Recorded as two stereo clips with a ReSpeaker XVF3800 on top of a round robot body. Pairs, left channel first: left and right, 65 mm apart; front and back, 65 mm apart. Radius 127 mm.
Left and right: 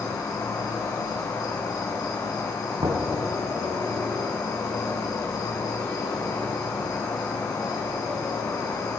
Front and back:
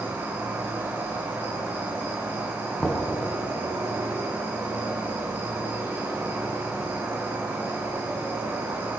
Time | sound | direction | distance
0.0 | an insect | 120° left | 6 m
2.8 | knocking | 80° right | 4.5 m